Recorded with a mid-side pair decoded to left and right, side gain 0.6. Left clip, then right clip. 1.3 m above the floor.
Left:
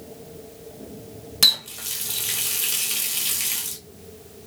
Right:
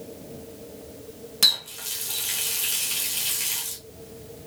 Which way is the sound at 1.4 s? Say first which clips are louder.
Left 2 dB; 15° left.